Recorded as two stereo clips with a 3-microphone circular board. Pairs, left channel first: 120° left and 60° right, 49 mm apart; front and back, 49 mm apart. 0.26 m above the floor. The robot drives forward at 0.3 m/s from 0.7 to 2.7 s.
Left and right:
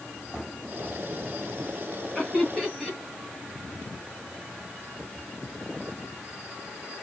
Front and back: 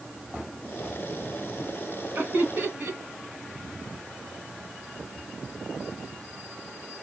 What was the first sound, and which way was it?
Laughter, 160° right.